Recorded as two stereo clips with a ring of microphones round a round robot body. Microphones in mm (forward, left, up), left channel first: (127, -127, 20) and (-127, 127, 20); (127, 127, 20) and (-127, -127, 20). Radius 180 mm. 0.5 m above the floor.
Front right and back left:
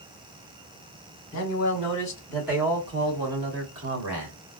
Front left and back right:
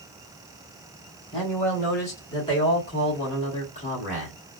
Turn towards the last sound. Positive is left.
turn(degrees=110)